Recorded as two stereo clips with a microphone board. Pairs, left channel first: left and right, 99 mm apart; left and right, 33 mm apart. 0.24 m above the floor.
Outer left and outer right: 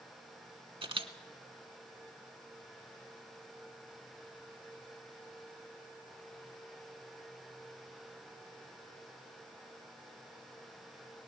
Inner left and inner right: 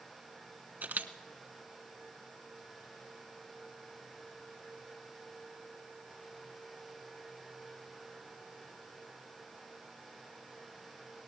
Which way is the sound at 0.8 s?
60° right (ahead or behind).